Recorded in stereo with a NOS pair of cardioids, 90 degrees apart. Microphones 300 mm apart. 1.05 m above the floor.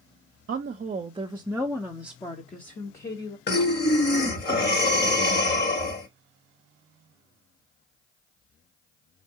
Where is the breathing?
35° left, 1.5 m.